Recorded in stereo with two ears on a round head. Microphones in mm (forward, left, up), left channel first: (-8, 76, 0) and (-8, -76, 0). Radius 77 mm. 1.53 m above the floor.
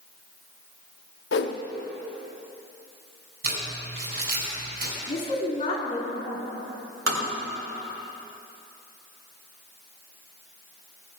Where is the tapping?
80° right, 3.5 m.